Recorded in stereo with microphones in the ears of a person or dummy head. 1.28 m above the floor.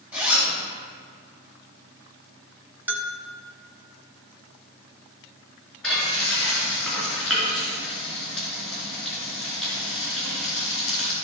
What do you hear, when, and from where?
0.1 s a zipper: 5° right (ahead or behind), 3 m
2.9 s a bell: 10° right (ahead or behind), 1.5 m
5.8 s frying: 5° left (ahead or behind), 3 m